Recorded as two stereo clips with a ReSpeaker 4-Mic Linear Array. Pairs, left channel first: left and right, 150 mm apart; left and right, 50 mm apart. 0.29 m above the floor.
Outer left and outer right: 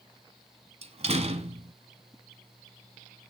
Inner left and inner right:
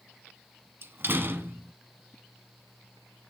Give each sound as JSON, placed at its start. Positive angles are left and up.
{"t": 0.8, "sound": "a door slam", "side_deg": -45, "distance_m": 1.7}